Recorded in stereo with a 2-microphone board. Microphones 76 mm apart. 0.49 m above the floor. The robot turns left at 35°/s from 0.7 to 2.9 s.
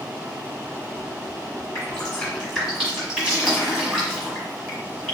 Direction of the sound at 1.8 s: 25° left (ahead or behind).